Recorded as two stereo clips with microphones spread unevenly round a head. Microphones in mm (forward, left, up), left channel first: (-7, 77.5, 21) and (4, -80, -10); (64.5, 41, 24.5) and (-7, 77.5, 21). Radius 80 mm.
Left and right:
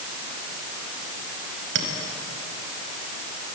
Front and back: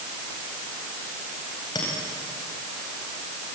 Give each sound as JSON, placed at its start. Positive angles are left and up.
{"t": 1.8, "sound": "a clink", "azimuth_deg": -90, "distance_m": 4.5}